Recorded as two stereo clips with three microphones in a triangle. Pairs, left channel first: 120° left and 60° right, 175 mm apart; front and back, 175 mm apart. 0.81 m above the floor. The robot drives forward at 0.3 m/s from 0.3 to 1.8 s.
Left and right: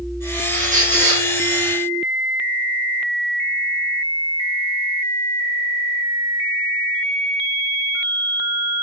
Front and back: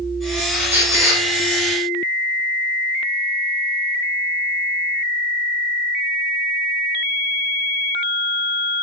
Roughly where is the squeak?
Right.